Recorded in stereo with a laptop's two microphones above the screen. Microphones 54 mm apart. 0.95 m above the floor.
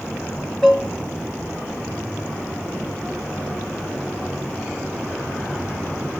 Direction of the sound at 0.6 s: 5° left (ahead or behind).